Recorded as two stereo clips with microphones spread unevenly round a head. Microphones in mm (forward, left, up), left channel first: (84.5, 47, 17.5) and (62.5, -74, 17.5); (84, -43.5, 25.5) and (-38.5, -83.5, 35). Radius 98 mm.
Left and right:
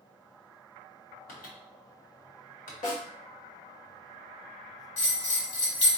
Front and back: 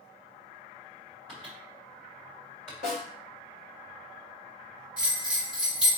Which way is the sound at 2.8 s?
65° left.